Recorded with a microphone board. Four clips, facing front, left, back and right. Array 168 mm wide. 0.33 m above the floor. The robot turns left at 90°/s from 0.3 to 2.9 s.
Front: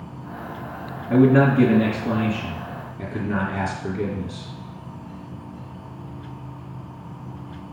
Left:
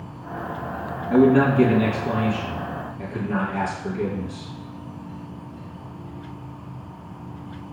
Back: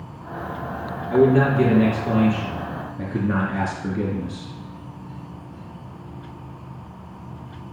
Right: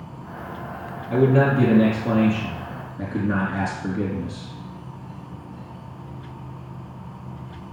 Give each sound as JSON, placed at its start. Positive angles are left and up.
{"t": 1.1, "sound": "a man speaking", "azimuth_deg": 15, "distance_m": 3.5}